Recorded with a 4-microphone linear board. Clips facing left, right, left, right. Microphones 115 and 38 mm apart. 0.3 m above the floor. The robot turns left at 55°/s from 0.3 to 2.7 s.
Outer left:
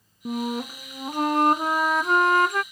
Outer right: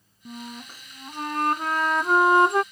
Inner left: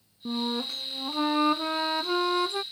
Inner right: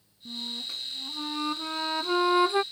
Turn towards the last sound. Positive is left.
turn(degrees=-35)